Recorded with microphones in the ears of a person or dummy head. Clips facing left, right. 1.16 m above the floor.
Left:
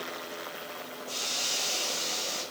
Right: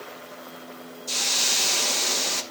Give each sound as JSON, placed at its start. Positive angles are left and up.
{"t": 1.1, "sound": "a hiss", "side_deg": -75, "distance_m": 0.9}